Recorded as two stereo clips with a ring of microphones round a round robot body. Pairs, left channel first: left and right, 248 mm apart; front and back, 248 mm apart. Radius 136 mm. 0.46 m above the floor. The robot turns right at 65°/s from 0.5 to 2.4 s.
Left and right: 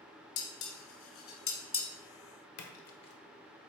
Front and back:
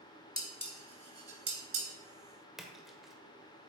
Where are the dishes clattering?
75° left, 2.0 m; by 1.9 s 165° left, 2.0 m.